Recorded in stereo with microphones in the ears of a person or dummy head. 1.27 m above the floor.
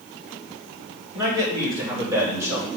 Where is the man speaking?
25° right (ahead or behind), 6 m; by 2.7 s 15° right (ahead or behind), 6 m.